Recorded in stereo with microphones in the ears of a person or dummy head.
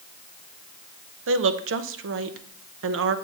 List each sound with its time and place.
1.3 s a woman speaking: 65° right (ahead or behind), 0.6 m